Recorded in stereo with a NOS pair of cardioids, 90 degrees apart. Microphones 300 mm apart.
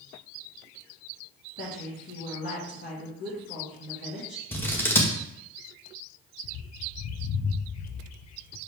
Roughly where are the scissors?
Ahead.